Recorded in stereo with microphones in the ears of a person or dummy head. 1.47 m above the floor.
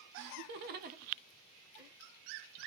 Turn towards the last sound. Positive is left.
turn(degrees=-20)  # may be behind; listen again after turning